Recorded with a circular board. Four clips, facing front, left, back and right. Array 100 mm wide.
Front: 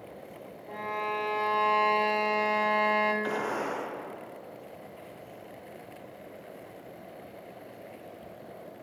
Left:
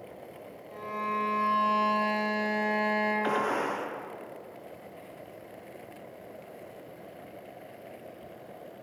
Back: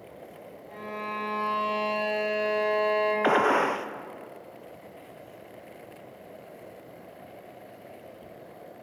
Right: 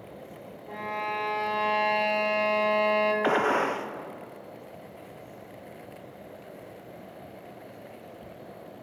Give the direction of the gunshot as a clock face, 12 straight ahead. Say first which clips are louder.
Right 4 dB, back 9 dB; 5 o'clock.